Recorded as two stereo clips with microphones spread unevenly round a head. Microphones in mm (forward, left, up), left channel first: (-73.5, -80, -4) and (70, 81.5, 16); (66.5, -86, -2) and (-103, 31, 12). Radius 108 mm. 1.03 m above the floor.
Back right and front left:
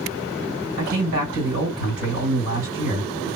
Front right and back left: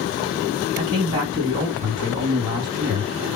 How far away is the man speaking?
About 2 m.